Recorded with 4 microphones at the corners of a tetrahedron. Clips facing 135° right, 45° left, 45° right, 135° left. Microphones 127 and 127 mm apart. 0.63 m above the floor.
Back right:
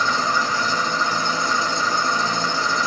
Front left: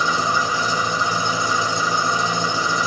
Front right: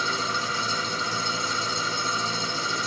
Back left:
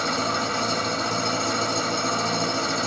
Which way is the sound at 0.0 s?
120° left.